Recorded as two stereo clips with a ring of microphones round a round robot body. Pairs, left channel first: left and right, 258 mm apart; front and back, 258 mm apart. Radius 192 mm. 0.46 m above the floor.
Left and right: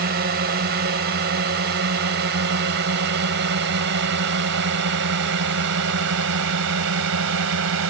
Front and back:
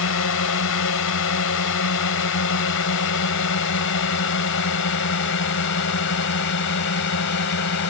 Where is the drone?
35° right; by 7.9 s 50° right.